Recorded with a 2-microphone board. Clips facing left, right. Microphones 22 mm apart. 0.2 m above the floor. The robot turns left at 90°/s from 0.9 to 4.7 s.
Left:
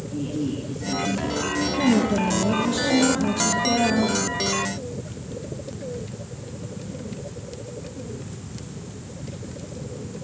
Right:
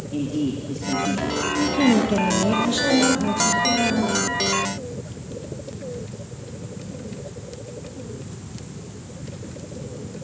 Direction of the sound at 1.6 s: 45° right.